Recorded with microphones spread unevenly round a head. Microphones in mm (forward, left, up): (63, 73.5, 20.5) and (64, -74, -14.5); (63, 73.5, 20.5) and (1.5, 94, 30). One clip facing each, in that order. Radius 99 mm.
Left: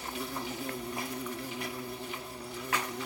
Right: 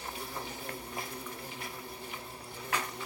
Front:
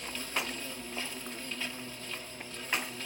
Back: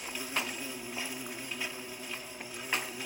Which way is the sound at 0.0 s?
80° left.